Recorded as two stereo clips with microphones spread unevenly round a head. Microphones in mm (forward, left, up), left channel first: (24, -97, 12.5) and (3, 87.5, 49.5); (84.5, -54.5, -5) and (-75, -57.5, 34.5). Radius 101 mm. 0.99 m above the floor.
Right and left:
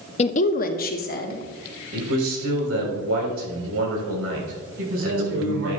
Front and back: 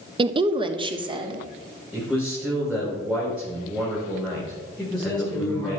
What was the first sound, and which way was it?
A woman speaking, 115° right.